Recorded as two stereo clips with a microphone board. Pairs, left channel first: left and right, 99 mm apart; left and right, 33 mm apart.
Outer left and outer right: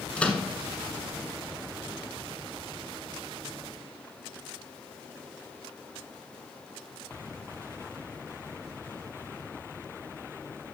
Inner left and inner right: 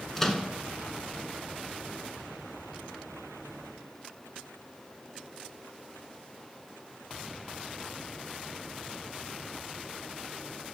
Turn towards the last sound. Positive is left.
turn(degrees=15)  # may be behind; listen again after turning